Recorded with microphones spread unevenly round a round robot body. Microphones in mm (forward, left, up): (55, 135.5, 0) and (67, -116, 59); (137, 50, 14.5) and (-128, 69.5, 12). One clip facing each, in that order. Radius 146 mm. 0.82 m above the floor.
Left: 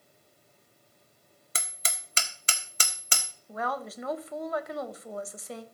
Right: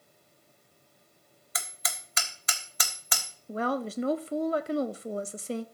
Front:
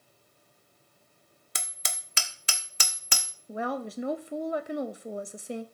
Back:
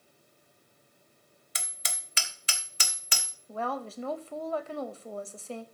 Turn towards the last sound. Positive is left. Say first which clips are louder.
# right 6 dB, front 3 dB
turn(degrees=-50)